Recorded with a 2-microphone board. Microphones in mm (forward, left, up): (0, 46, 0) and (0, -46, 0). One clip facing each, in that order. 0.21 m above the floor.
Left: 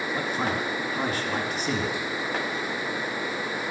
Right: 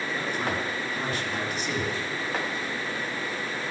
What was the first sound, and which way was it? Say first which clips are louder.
A man speaking: left 2 dB; 45° left (ahead or behind).